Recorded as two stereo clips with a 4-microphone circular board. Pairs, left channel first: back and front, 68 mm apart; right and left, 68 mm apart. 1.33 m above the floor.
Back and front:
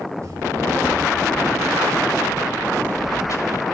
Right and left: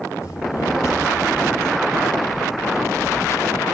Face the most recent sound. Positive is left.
turn(degrees=-145)